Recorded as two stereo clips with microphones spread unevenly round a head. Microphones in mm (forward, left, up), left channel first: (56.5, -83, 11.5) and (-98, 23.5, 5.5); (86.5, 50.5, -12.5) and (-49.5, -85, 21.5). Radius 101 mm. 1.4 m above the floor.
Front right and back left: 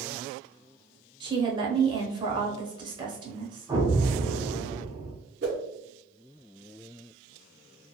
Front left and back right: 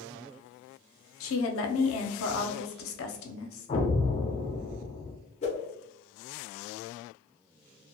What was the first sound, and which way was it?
A woman speaking, 75° left.